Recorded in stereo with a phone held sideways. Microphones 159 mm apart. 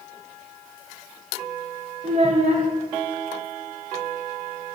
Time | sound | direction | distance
2.0 | a child speaking | 45° right (ahead or behind) | 0.6 m